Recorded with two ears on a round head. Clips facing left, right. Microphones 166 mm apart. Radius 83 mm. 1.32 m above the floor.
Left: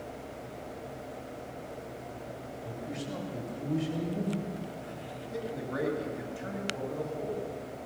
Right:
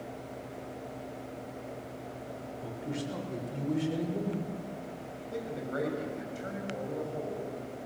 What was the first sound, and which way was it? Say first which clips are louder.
A man speaking: right 2 dB; 85° right.